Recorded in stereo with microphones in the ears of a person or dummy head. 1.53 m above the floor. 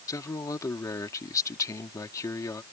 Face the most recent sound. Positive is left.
turn(degrees=20)  # may be behind; listen again after turning